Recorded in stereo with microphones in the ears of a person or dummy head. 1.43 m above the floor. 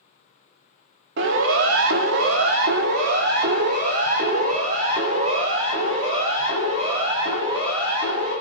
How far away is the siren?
About 2.5 m.